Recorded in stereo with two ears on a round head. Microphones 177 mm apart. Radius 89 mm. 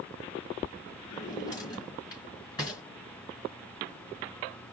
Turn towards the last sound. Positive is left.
turn(degrees=20)  # may be behind; listen again after turning